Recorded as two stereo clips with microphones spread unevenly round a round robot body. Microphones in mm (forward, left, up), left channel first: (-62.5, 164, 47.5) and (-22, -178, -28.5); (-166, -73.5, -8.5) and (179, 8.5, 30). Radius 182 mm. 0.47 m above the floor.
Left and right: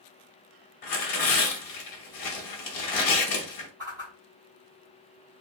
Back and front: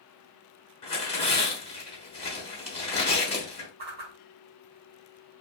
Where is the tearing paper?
125° left, 0.9 m.